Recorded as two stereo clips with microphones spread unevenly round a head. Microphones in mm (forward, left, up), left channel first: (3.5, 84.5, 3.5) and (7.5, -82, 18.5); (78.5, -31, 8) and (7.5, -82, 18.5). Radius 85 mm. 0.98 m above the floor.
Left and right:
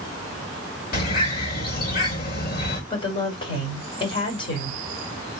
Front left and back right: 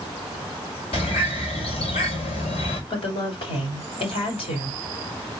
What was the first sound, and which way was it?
A bird, 55° left.